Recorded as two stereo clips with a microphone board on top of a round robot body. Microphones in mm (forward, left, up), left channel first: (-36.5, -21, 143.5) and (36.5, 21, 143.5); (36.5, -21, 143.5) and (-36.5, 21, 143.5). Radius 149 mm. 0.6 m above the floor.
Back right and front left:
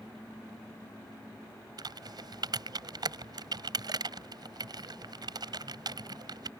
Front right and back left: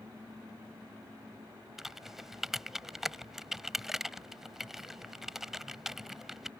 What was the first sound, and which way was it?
Typing on a keyboard, 65° left.